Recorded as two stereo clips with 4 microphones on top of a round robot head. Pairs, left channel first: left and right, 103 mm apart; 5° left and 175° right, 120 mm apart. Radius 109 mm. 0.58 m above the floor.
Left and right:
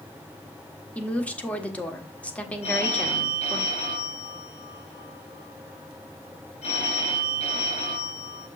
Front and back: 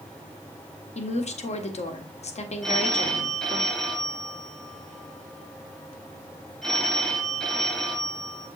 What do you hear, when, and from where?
0.9 s a woman speaking: 15° left, 1.6 m
2.6 s a phone ringing: 90° left, 2 m